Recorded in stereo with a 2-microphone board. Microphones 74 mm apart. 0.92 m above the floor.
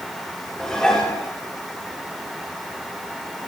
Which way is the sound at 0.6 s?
10° left (ahead or behind).